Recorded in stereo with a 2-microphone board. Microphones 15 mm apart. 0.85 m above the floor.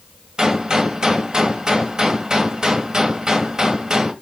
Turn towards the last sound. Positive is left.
turn(degrees=-45)  # may be behind; listen again after turning